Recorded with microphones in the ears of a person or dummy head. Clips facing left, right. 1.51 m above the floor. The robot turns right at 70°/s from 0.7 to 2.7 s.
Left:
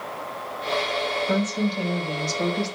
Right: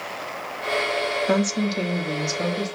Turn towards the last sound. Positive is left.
turn(degrees=15)